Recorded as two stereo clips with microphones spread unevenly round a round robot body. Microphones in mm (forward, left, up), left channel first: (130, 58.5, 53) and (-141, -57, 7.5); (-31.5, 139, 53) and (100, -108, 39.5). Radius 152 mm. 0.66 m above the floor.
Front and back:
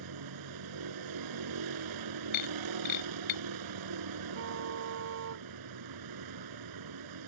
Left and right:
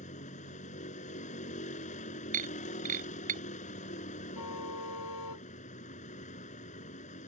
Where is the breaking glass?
Straight ahead.